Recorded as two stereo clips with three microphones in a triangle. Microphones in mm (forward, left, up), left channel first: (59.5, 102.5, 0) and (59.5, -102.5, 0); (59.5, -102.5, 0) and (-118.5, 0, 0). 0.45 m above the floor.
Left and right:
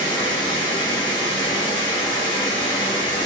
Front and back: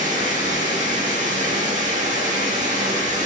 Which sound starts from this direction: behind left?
Running water, at 0.0 s.